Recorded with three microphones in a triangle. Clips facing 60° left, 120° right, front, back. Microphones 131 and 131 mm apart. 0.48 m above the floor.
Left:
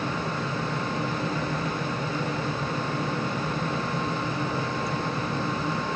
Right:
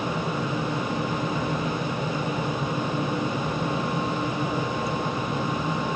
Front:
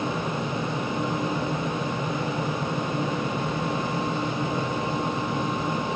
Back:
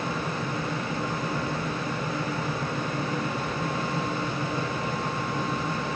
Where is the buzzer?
I don't hear a buzzer.